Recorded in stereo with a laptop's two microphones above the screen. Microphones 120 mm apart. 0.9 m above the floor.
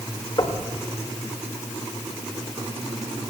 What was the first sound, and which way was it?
Knocking, 40° left (ahead or behind).